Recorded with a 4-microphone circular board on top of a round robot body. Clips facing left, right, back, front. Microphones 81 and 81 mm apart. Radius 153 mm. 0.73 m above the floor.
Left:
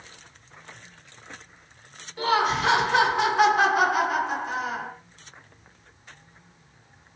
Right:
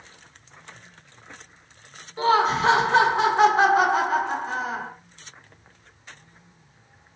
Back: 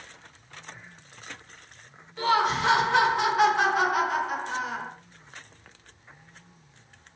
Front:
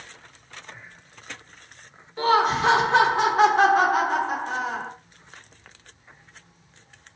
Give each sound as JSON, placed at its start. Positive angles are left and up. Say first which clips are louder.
{"t": 2.2, "sound": "laughter", "louder": "right 3 dB, front 4 dB", "azimuth_deg": -45, "distance_m": 1.2}